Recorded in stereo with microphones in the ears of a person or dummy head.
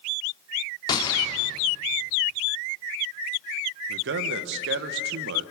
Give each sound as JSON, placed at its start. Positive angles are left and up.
{"t": 0.9, "sound": "a gunshot", "side_deg": 30, "distance_m": 1.9}
{"t": 3.9, "sound": "a man speaking", "side_deg": -75, "distance_m": 1.5}